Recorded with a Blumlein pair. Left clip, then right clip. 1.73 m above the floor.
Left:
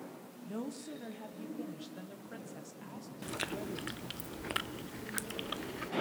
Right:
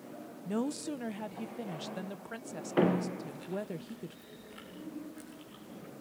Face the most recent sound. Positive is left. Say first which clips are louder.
# left 1 dB
turn(degrees=40)